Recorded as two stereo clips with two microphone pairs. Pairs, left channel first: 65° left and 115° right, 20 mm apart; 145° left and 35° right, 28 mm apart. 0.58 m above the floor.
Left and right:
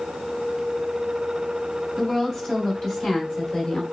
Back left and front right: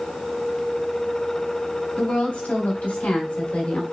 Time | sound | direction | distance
2.0 | a woman speaking | 140° left | 3.5 m